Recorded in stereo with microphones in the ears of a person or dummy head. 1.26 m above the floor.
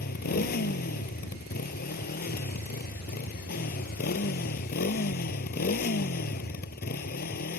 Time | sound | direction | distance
0.0 | a motorcycle | 50° left (ahead or behind) | ?